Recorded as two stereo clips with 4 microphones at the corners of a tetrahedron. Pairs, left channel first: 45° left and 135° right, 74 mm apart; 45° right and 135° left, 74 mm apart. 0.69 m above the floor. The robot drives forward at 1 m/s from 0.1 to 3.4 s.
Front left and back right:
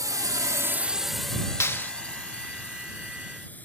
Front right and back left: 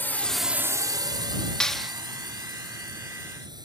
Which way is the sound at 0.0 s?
105° right.